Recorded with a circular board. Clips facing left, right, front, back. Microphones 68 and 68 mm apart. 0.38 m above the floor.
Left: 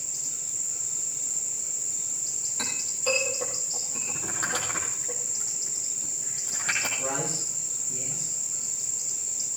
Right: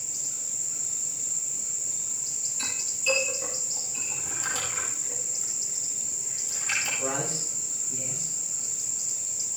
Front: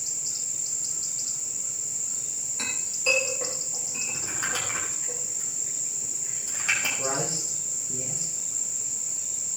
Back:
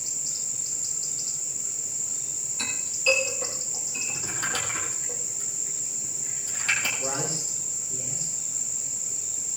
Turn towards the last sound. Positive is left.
turn(degrees=10)